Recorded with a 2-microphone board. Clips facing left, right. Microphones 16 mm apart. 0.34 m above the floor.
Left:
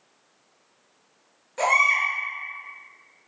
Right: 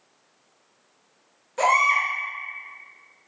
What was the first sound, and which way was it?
A baby crying, 10° right (ahead or behind).